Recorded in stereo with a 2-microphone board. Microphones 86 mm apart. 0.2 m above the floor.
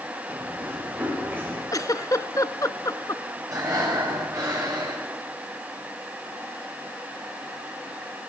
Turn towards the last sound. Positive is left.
turn(degrees=-40)  # may be behind; listen again after turning